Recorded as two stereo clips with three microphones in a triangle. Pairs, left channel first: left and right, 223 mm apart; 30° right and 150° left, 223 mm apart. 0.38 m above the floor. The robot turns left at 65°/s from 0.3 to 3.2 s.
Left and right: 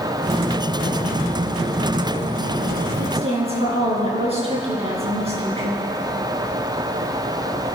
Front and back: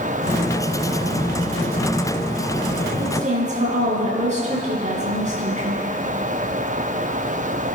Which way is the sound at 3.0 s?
140° right.